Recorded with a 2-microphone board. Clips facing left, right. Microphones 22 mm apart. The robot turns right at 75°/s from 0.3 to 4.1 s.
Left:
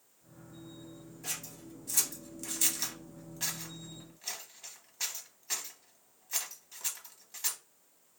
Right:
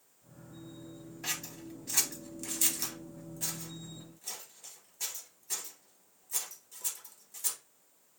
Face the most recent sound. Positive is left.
turn(degrees=40)  # may be behind; listen again after turning